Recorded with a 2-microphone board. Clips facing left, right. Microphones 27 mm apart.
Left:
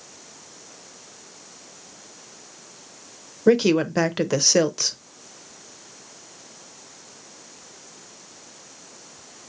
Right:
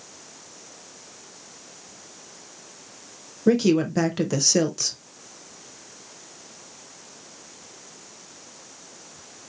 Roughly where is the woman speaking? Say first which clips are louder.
Left 2 dB; left.